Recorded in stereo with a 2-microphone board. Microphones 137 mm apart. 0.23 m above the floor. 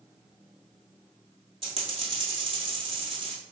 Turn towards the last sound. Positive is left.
turn(degrees=-40)  # may be behind; listen again after turning